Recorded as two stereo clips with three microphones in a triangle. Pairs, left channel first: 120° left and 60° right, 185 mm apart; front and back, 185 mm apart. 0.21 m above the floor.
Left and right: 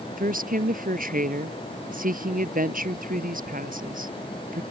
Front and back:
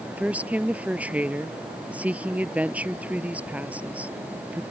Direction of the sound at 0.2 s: 100° right.